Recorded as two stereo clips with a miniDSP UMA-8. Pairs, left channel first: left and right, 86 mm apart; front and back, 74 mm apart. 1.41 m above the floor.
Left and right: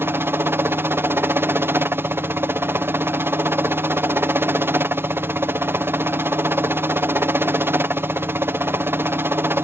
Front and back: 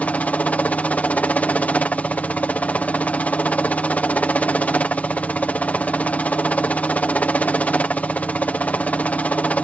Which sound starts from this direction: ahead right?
A helicopter, at 0.0 s.